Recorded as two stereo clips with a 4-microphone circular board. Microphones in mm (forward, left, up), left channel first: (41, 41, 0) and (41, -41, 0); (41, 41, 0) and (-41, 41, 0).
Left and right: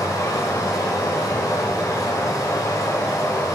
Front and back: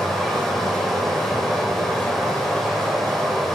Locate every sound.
0.0 s running water: 85° left, 0.7 m